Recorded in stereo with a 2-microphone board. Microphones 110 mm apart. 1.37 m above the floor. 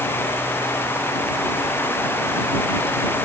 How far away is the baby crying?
No baby crying in this recording.